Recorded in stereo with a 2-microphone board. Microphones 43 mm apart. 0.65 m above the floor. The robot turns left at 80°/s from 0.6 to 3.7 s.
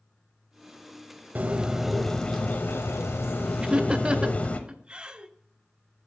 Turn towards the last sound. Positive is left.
turn(degrees=-20)  # may be behind; listen again after turning